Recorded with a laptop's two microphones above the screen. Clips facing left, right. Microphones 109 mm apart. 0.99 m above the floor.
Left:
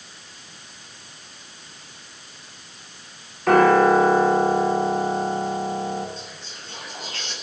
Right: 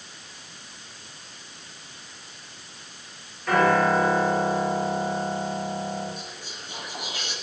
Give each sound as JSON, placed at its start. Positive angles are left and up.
{"t": 3.5, "sound": "a piano", "side_deg": 70, "distance_m": 3.5}
{"t": 6.2, "sound": "whispering", "side_deg": -15, "distance_m": 7.5}